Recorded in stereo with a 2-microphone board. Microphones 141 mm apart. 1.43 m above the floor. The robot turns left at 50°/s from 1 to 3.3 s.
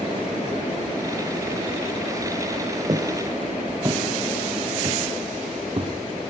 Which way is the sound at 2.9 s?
35° right (ahead or behind).